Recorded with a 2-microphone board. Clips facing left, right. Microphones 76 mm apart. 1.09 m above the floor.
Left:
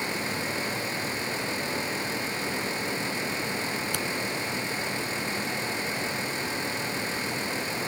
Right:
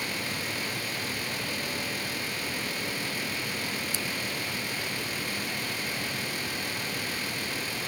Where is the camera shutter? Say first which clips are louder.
Left 4 dB; 60° left (ahead or behind).